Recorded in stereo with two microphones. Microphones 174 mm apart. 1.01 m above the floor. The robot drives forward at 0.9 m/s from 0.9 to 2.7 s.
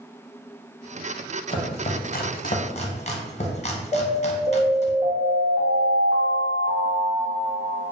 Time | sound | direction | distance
1.5 | chopping | 30° left (ahead or behind) | 0.8 m
3.9 | an alarm | 20° right (ahead or behind) | 1.5 m